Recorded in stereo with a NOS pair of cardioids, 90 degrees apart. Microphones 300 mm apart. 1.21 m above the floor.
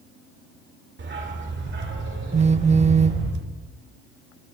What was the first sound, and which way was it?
A dog barking, 40° right.